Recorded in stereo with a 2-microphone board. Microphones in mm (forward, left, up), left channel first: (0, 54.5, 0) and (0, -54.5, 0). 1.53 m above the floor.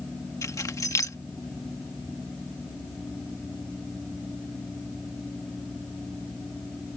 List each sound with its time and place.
0.4 s keys jangling: 30° left (ahead or behind)